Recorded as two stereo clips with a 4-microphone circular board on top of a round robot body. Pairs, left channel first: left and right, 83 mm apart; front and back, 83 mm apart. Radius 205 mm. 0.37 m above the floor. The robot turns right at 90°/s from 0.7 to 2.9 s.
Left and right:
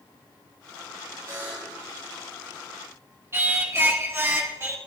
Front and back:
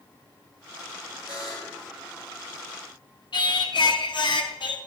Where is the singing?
25° right, 1.3 m.